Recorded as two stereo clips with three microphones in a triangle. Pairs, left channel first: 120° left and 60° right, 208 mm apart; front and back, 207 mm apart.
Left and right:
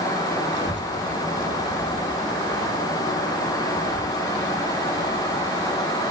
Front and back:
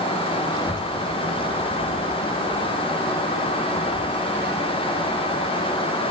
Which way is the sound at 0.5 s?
70° right.